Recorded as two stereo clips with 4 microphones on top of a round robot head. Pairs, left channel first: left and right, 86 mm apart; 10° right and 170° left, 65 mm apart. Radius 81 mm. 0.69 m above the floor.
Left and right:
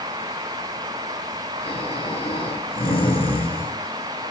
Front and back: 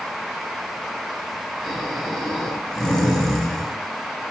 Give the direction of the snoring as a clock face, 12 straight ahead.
10 o'clock.